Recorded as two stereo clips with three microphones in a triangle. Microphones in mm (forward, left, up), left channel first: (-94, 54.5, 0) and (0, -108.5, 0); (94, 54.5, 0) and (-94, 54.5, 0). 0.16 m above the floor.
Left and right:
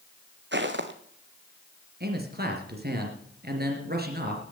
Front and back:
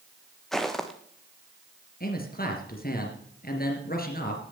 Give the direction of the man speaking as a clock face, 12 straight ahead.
1 o'clock.